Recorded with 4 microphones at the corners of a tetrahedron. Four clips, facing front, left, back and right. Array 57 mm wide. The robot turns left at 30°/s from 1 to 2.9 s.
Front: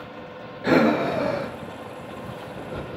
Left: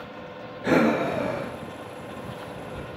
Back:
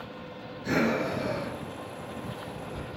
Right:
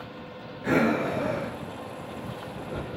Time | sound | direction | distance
0.6 | breathing | 25° left | 1.5 m